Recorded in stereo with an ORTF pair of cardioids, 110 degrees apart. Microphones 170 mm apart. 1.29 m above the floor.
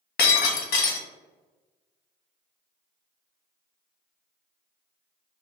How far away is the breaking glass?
About 1.3 m.